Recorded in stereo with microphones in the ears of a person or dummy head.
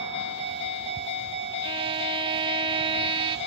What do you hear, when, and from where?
1.6 s a violin: 25° right (ahead or behind)